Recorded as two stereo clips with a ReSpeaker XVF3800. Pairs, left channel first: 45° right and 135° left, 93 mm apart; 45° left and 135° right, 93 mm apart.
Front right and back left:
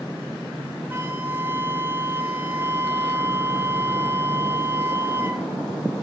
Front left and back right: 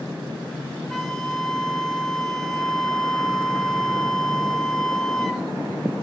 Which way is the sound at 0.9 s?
125° left.